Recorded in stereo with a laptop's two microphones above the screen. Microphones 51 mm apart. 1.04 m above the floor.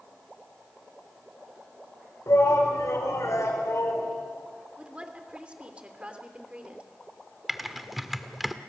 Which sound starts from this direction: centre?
Typing on a keyboard, at 7.5 s.